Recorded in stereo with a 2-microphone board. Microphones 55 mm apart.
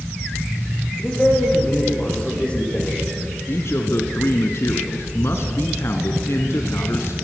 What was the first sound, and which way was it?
A man speaking, 25° left (ahead or behind).